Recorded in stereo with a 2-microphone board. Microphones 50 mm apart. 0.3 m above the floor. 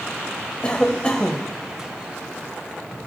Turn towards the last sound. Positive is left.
turn(degrees=25)  # may be behind; listen again after turning